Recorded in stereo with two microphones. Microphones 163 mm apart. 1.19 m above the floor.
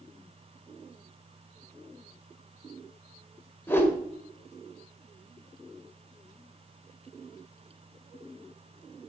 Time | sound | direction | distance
3.7 | a whoosh | 15° left (ahead or behind) | 1.8 m